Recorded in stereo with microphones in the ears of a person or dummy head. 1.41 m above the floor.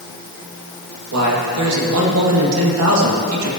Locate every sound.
1.1 s a man speaking: 80° right, 2.5 m